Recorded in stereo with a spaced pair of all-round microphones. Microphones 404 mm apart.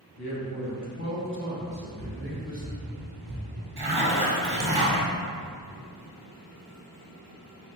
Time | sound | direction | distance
0.2 | a man speaking | 70° left (ahead or behind) | 1.1 m
1.7 | running footsteps | 45° left (ahead or behind) | 1.7 m
3.8 | a zipper | 70° right (ahead or behind) | 0.8 m